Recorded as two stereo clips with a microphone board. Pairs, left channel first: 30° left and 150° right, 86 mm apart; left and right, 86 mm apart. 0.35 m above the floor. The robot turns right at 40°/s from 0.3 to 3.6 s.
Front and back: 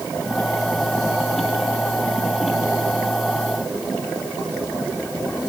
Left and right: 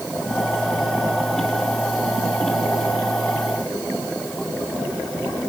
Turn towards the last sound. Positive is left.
No sound to turn to.